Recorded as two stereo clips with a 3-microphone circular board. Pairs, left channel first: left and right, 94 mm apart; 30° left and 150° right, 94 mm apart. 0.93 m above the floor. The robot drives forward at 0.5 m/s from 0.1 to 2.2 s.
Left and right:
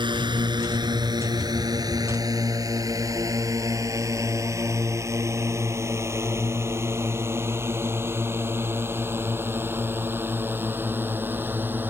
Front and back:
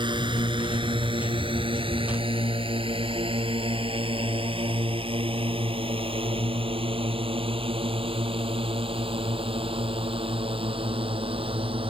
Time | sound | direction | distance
0.0 | a drone | 120° right | ?